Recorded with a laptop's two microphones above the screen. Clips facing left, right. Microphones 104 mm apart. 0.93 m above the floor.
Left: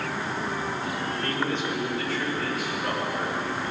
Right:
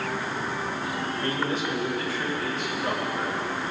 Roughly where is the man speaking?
Right.